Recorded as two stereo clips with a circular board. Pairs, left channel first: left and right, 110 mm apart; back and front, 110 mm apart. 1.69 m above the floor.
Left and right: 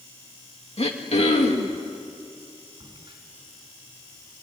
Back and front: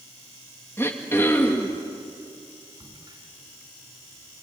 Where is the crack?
45° right, 4.5 m.